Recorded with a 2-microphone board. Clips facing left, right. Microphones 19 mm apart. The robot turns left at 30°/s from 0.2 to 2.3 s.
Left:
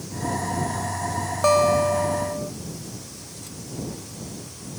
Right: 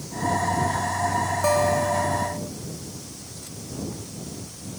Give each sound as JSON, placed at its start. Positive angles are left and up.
{"t": 1.4, "sound": "a guitar", "side_deg": 15}